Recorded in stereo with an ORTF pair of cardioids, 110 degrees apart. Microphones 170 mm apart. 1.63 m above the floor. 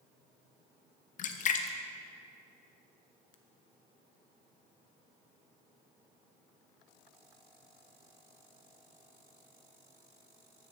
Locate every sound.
1.2 s a splash: 45° left, 0.6 m